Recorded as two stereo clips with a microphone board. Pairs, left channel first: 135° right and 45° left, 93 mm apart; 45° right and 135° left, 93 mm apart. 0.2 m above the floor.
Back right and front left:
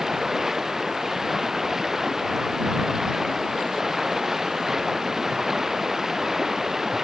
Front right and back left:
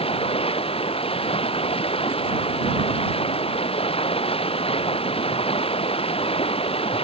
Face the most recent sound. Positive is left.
turn(degrees=-40)